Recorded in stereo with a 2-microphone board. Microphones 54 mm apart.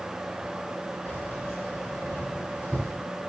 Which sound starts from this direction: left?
Keys jangling, at 1.1 s.